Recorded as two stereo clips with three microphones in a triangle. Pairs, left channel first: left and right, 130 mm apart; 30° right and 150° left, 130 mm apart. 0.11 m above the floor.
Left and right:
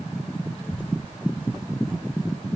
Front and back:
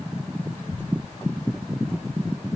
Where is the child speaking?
45° left, 3 m; by 2.5 s 40° left, 1.8 m.